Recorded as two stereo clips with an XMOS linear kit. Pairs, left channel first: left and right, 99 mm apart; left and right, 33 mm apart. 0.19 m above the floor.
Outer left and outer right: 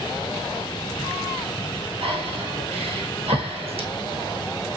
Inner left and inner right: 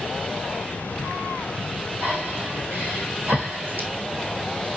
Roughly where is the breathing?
Right.